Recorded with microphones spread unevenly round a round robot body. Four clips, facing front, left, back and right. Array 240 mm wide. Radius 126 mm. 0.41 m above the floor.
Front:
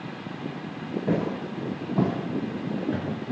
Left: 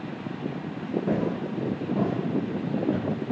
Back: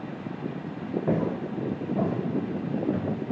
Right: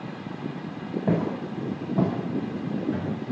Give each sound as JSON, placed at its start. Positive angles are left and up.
{"t": 1.1, "sound": "footsteps", "azimuth_deg": -95, "distance_m": 1.4}